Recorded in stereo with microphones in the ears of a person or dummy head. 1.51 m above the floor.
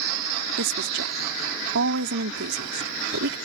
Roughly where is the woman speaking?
Right.